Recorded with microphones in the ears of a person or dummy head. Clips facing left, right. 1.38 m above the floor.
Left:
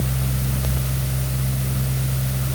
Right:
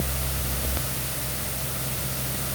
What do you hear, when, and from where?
Only background noise.